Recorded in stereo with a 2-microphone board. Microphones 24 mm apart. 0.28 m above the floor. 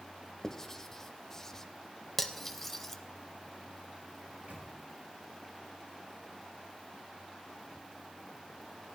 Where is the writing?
15° left (ahead or behind), 0.7 m.